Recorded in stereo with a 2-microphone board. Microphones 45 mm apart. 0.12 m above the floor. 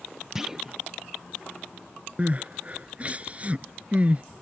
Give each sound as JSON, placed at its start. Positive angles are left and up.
{"t": 0.3, "sound": "a clunk", "side_deg": -10}
{"t": 2.2, "sound": "crying", "side_deg": -30}